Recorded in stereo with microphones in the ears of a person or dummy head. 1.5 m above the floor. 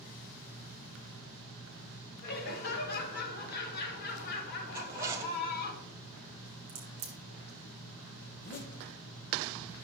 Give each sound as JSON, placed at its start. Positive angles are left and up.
{"t": 2.2, "sound": "laughter", "side_deg": 50, "distance_m": 2.0}
{"t": 4.7, "sound": "a zipper", "side_deg": -15, "distance_m": 0.7}
{"t": 6.7, "sound": "a crack", "side_deg": -30, "distance_m": 1.2}
{"t": 8.3, "sound": "a zipper", "side_deg": 45, "distance_m": 0.9}